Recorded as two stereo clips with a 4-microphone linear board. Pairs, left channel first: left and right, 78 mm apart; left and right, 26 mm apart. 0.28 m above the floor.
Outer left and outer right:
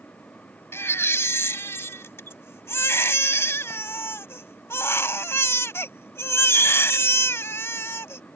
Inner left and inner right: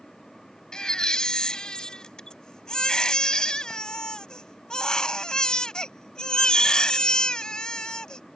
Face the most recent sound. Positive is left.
turn(degrees=30)  # may be behind; listen again after turning